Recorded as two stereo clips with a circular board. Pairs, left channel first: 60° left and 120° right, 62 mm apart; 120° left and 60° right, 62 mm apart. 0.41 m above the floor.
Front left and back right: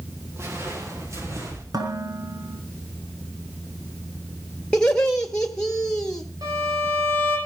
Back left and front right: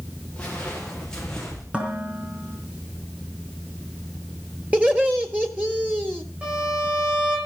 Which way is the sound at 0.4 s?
165° right.